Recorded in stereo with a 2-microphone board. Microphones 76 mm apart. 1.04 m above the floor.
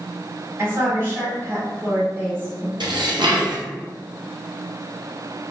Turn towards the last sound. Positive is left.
turn(degrees=-80)